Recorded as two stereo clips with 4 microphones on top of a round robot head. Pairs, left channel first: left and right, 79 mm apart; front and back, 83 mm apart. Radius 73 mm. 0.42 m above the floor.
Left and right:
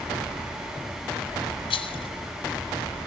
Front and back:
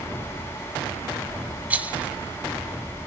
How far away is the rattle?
About 1.8 m.